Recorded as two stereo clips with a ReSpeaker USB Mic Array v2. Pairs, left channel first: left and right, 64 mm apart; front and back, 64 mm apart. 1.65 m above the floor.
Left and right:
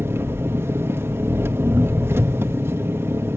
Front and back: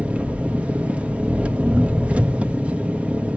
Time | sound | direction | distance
0.0 | an engine running | 115° right | 1.2 m